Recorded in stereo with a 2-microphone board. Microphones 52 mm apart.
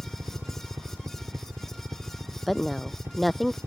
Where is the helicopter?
55° right (ahead or behind).